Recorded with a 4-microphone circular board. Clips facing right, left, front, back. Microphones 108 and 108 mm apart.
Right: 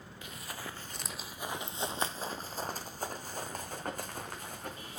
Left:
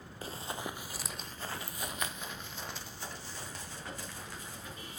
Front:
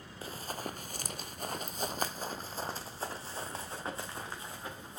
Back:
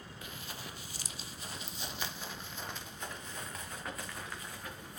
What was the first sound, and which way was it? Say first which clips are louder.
Running footsteps: left 5 dB, front 8 dB; 45° left.